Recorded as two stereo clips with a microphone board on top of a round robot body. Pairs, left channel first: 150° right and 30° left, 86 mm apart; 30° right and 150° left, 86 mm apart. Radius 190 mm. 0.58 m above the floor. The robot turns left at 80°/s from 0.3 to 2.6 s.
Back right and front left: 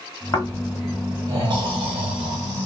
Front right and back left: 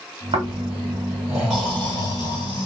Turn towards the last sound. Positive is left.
turn(degrees=-30)